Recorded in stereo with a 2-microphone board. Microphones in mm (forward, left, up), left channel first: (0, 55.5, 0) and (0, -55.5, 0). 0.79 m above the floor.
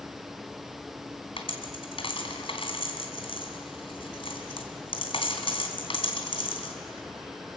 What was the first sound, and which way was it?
A dropped coin, 55° left (ahead or behind).